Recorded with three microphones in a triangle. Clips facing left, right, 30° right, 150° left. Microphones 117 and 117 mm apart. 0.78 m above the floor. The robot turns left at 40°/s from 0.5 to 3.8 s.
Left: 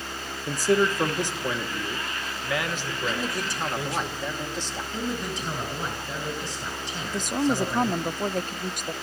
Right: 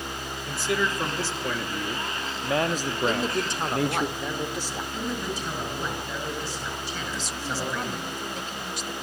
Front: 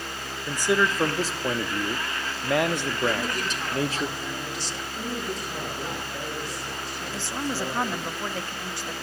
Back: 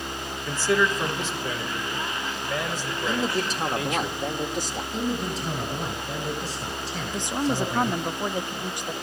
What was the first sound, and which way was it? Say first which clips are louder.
A man speaking: left 5 dB, even; 50° left.